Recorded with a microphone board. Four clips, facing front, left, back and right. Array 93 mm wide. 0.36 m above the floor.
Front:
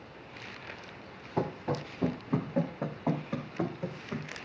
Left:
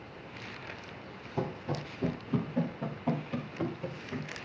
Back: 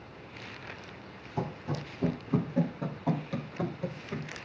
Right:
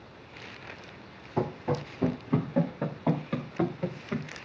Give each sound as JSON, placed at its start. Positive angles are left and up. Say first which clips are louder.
{"t": 1.4, "sound": "running footsteps", "louder": "right 5 dB, front 3 dB", "azimuth_deg": -50, "distance_m": 2.5}